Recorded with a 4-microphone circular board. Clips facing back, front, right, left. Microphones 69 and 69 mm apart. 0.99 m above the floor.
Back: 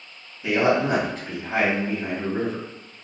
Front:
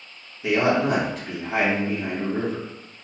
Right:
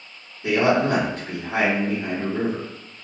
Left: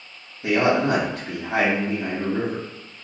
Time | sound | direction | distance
0.4 | a man speaking | 85° left | 1.8 m